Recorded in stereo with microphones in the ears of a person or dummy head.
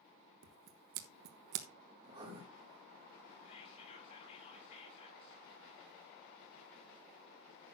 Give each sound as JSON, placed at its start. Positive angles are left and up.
{"t": 0.4, "sound": "scissors", "side_deg": -55, "distance_m": 1.0}
{"t": 2.0, "sound": "writing", "side_deg": -25, "distance_m": 1.8}
{"t": 3.5, "sound": "whispering", "side_deg": 40, "distance_m": 7.0}